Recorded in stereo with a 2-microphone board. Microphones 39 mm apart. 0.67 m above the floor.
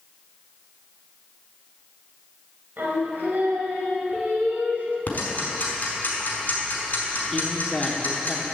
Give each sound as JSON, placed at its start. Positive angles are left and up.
{"t": 2.8, "sound": "singing", "side_deg": -55, "distance_m": 2.0}
{"t": 5.1, "sound": "ticking", "side_deg": 45, "distance_m": 3.5}
{"t": 7.3, "sound": "a man speaking", "side_deg": 15, "distance_m": 1.1}